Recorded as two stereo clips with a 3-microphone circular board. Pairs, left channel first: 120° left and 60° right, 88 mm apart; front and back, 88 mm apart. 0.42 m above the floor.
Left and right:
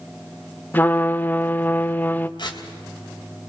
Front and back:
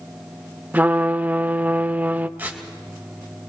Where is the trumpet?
145° left, 0.6 m.